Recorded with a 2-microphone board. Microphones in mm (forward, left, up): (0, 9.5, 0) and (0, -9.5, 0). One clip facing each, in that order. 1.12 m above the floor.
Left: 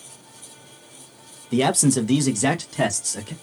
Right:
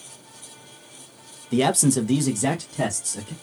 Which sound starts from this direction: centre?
A man speaking, at 1.5 s.